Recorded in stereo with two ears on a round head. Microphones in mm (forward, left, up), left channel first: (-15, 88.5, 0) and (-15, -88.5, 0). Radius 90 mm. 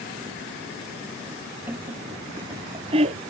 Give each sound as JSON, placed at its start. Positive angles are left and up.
{"t": 1.7, "sound": "laughter", "side_deg": -10}